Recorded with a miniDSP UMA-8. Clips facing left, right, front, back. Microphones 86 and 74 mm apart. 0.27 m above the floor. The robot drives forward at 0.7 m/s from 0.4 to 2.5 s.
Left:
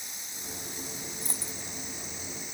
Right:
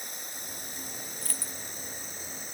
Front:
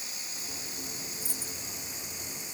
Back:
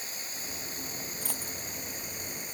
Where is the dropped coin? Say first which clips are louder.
Left 1 dB, back 2 dB; 160° left.